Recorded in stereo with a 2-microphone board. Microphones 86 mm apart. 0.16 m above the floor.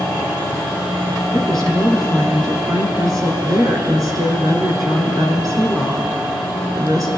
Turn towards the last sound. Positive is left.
turn(degrees=-45)  # may be behind; listen again after turning